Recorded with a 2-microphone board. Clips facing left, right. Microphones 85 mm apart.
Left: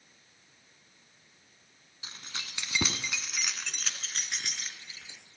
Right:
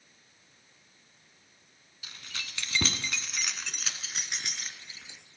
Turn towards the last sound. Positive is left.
turn(degrees=-15)  # may be behind; listen again after turning